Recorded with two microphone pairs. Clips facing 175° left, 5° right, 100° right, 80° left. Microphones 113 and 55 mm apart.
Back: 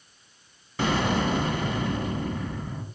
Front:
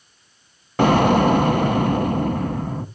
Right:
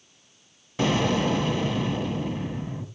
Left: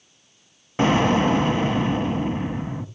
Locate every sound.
0.8 s an explosion: 20° left, 1.1 m